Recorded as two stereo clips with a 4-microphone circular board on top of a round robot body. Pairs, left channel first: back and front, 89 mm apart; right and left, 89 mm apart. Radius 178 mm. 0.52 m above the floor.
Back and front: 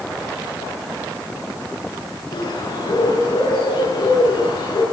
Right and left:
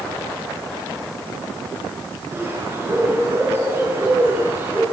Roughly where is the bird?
Behind left.